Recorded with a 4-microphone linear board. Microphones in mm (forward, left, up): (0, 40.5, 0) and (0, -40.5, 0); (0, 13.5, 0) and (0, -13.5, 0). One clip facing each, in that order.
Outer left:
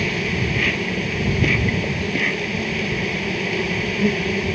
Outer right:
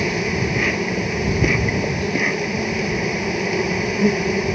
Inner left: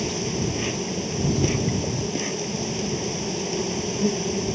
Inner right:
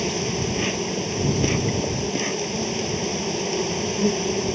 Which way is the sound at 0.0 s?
15° right (ahead or behind).